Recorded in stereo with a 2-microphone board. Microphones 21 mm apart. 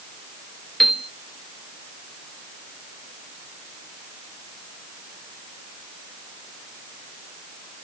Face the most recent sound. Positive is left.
turn(degrees=0)  # may be behind; listen again after turning